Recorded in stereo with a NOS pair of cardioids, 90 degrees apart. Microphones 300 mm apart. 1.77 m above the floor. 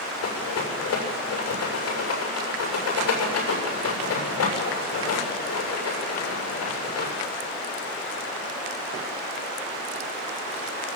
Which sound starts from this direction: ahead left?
A rattle, at 0.2 s.